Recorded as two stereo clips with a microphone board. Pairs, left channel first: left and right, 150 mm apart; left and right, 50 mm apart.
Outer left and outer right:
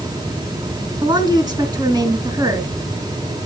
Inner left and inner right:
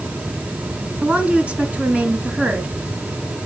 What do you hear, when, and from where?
1.0 s a woman speaking: 30° right (ahead or behind), 2.5 m